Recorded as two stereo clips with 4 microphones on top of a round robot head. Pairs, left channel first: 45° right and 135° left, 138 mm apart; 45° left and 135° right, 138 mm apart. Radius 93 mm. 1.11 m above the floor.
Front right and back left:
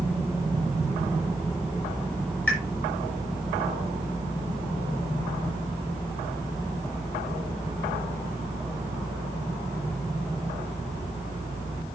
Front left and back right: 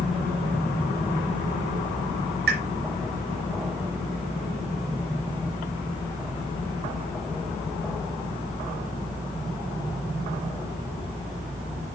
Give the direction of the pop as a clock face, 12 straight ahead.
4 o'clock.